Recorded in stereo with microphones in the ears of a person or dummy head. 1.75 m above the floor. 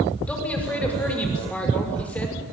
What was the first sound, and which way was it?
A man speaking, 5° left (ahead or behind).